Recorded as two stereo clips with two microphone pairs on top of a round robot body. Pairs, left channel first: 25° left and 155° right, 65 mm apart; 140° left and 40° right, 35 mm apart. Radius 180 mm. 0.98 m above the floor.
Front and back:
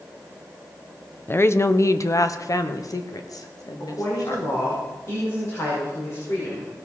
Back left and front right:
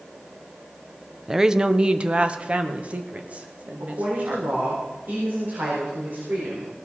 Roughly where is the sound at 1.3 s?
Ahead left.